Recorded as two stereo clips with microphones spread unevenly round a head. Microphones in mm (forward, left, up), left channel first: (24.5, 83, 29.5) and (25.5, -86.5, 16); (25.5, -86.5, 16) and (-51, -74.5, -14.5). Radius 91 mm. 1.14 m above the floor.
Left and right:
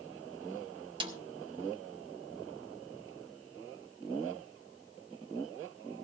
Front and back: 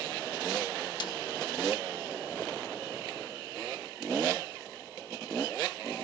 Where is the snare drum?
25° right, 2.0 m.